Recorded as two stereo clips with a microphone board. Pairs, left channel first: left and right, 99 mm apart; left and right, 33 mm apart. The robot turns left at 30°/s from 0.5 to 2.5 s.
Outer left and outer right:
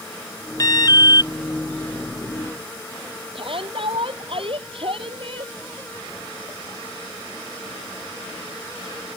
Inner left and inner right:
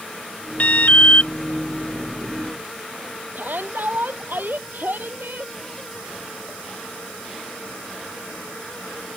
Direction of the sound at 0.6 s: 45° left (ahead or behind).